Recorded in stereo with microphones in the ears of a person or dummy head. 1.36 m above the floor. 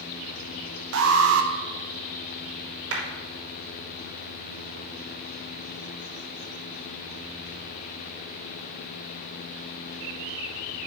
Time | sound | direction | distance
0.9 | an alarm | 85° right | 1.1 m
2.9 | a clap | 75° right (ahead or behind) | 3 m